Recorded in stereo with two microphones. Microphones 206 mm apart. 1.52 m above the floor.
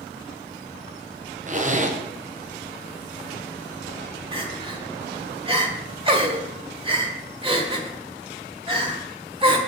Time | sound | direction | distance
1.5 | a zipper | 40° right (ahead or behind) | 1.0 m
4.3 | crying | 25° right (ahead or behind) | 1.5 m